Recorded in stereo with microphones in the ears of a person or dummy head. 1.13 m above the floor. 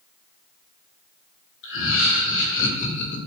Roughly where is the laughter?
Left.